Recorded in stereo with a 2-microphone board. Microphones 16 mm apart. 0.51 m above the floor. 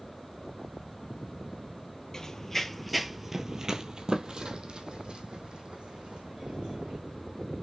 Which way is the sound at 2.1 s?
30° left (ahead or behind).